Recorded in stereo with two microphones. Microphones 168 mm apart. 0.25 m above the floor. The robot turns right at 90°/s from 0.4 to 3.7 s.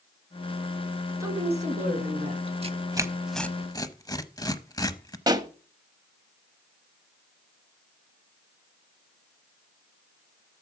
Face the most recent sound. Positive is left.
turn(degrees=-25)  # may be behind; listen again after turning